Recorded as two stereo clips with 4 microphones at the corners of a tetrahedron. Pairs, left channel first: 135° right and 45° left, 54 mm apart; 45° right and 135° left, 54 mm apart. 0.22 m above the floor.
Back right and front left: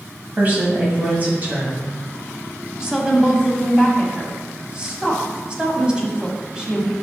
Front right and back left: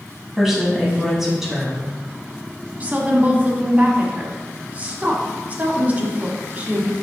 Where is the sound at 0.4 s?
50° left, 1.2 m.